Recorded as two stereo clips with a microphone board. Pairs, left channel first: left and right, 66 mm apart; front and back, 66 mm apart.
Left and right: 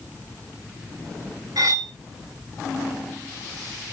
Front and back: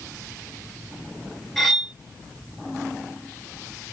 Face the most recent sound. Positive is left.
turn(degrees=-85)